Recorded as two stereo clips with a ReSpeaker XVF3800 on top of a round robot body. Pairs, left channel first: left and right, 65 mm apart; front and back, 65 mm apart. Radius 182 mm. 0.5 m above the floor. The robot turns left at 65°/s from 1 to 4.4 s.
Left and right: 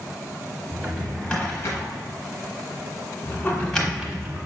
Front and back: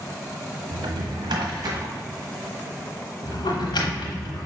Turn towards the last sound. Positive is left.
turn(degrees=-40)